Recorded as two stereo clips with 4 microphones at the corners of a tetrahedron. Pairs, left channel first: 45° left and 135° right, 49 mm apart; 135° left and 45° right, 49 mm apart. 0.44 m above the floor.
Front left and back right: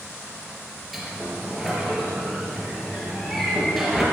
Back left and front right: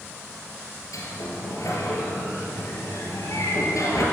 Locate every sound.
0.9 s a sliding door: 135° left, 3.5 m